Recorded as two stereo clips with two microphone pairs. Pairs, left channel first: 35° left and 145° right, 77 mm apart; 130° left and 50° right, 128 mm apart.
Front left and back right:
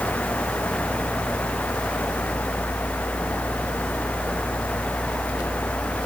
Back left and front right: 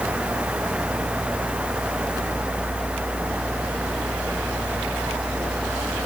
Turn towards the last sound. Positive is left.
No sound to turn to.